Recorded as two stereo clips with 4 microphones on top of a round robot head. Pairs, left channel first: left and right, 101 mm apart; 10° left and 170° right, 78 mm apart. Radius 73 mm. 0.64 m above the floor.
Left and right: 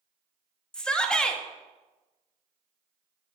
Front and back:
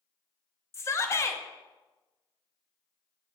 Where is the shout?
15° left, 0.9 m.